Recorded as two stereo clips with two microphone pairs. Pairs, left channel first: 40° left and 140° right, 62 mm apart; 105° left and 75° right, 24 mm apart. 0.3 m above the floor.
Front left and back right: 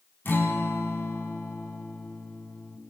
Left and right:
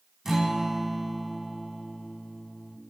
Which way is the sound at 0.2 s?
5° right.